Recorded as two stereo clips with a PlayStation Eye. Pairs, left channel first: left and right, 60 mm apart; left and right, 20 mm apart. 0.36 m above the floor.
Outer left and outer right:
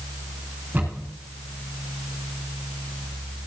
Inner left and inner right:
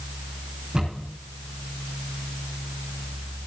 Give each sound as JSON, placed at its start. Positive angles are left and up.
{"t": 0.7, "sound": "a cupboard door", "side_deg": -25, "distance_m": 9.5}